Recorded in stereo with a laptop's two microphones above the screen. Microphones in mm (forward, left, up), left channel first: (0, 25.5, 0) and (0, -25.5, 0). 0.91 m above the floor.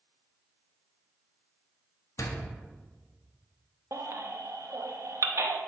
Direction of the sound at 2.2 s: 75° left (ahead or behind).